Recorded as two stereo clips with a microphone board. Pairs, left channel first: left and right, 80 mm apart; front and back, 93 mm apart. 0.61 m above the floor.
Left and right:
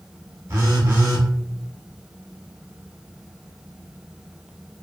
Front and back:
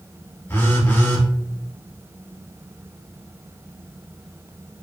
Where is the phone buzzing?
60° right, 0.8 m.